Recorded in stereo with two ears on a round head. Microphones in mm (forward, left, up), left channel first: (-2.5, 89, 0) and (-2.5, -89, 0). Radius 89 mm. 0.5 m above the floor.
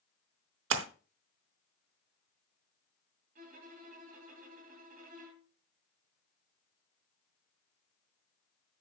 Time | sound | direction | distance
0.7 | a splash | 70° right (ahead or behind) | 0.9 m
3.4 | a violin | 45° right (ahead or behind) | 2.5 m